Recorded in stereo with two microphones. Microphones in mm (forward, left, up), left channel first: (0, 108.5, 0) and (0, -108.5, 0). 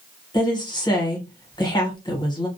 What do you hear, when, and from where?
0.3 s a woman speaking: 20° left (ahead or behind), 1.0 m